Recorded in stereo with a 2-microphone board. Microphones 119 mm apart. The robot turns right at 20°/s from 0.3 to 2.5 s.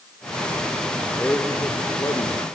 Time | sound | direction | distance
1.2 | a man speaking | 10° left (ahead or behind) | 2.5 m